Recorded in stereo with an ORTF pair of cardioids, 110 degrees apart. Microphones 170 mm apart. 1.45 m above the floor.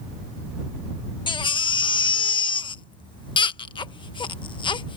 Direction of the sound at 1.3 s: 25° left.